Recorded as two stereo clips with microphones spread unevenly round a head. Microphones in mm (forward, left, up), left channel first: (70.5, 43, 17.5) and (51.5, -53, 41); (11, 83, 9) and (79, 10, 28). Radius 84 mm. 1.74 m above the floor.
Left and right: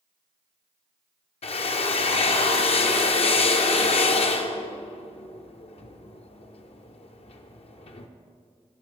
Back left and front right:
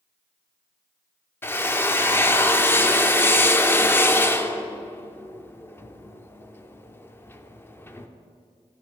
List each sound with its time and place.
1.4 s a drill: 65° left, 0.7 m